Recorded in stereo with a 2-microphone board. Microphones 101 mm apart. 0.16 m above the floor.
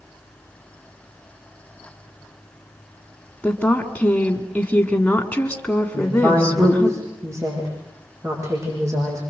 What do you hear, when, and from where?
3.4 s a woman speaking: 10° left (ahead or behind), 1.7 m
5.9 s a woman speaking: 30° right (ahead or behind), 9 m